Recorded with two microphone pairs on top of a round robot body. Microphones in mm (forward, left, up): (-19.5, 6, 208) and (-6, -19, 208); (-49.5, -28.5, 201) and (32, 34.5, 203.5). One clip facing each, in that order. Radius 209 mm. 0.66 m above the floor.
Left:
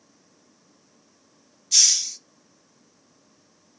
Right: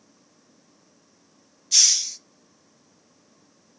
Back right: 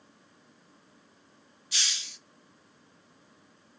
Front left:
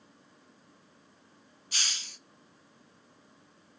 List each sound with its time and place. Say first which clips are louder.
1.7 s a hiss: even, even; 20° left, 0.6 m